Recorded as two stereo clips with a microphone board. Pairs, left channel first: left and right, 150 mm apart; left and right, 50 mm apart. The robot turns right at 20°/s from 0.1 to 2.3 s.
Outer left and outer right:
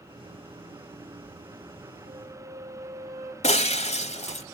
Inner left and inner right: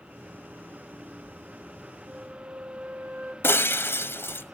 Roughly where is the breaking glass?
Left.